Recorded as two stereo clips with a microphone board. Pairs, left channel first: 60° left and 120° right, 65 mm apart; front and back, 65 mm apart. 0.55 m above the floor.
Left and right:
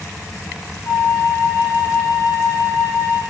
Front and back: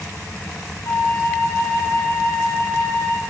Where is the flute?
30° left, 3.5 m.